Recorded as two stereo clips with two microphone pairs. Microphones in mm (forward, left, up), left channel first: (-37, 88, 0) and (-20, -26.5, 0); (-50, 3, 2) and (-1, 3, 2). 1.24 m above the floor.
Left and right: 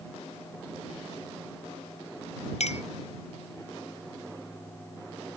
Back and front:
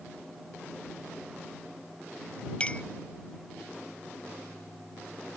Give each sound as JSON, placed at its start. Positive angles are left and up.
{"t": 2.6, "sound": "a clink", "azimuth_deg": 115}